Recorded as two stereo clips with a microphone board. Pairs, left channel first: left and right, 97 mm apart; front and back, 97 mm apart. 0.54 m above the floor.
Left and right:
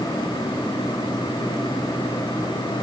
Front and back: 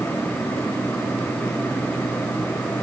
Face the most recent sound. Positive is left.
No sound to turn to.